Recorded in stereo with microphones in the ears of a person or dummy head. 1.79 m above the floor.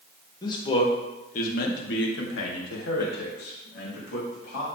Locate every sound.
0.4 s a man speaking: 25° left (ahead or behind), 2.5 m; by 4.7 s 60° left (ahead or behind), 4 m